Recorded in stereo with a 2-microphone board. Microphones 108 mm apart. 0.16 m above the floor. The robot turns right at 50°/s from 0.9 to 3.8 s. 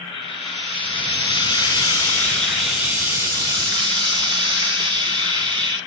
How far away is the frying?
About 2.5 m.